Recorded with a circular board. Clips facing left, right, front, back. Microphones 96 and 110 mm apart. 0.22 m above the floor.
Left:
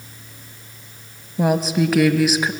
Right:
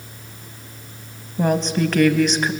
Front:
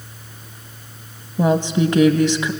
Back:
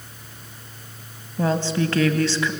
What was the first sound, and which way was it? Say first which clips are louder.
A woman speaking: left 1 dB, front 5 dB; 20° left.